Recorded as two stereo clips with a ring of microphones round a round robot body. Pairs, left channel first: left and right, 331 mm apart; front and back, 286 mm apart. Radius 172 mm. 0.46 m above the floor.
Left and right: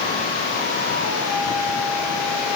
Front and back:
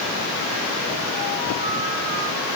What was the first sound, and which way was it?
Only background noise.